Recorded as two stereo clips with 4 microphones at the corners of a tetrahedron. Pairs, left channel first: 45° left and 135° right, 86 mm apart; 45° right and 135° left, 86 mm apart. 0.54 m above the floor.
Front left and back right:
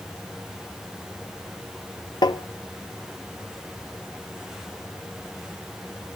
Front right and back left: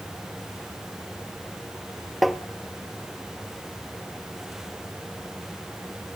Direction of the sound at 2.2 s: 45° left.